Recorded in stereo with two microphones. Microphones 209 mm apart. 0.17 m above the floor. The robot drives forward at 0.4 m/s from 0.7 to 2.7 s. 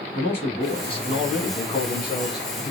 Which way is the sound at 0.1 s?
25° left (ahead or behind).